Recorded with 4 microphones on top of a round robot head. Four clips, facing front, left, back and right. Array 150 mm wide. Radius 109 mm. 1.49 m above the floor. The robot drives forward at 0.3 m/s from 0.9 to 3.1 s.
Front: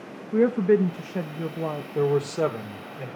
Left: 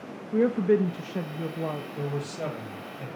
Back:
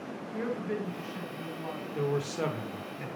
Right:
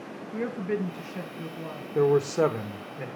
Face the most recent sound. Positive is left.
turn(degrees=-65)